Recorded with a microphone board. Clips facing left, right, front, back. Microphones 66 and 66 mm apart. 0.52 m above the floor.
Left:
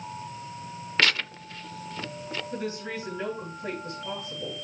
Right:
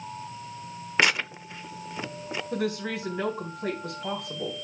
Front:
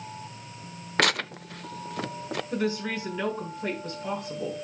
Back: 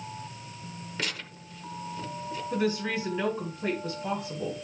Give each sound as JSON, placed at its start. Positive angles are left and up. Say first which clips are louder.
{"t": 1.0, "sound": "tearing paper", "louder": "right 2 dB, front 12 dB", "azimuth_deg": -20, "distance_m": 0.5}
{"t": 2.5, "sound": "a woman speaking", "louder": "right 6 dB, back 1 dB", "azimuth_deg": -100, "distance_m": 4.0}